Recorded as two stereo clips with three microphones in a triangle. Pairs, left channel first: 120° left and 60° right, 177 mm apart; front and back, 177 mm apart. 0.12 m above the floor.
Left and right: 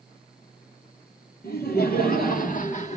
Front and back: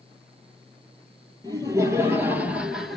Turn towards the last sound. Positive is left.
turn(degrees=90)